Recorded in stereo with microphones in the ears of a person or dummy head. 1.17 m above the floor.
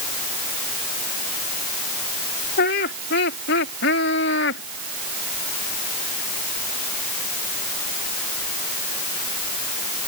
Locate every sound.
2.6 s laughter: 50° left (ahead or behind); by 4.6 s 65° left (ahead or behind)